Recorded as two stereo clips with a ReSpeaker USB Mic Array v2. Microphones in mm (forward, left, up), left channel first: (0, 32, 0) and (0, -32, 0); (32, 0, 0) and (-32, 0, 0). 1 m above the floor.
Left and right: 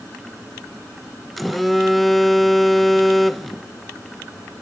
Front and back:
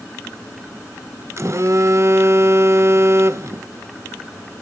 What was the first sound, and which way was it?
A phone buzzing, straight behind.